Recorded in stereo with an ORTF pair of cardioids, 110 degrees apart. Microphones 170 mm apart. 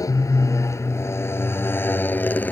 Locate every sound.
0.0 s a motorcycle: 20° left; by 2.5 s 10° left